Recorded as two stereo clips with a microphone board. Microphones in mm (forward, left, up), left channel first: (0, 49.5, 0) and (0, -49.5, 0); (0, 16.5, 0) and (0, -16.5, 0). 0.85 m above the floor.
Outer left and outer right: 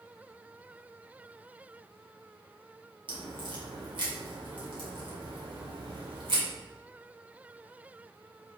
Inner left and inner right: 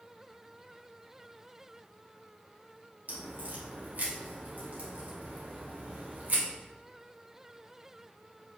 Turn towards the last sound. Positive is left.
turn(degrees=-55)  # may be behind; listen again after turning